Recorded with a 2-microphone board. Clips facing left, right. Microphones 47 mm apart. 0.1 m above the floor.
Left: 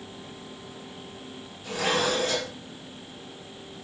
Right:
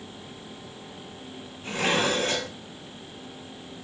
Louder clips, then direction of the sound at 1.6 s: Right 1 dB; 35° right (ahead or behind).